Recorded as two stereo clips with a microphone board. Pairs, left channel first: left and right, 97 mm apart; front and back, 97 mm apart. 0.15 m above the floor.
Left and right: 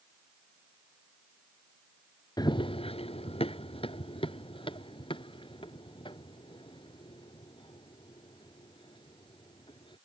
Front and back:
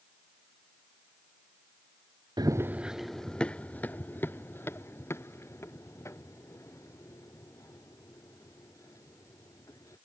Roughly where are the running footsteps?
Behind left.